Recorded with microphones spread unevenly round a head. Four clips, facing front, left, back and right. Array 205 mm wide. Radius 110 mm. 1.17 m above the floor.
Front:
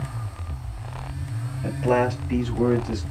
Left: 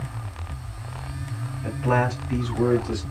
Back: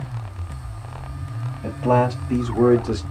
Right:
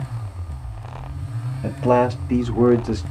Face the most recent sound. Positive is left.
turn(degrees=-140)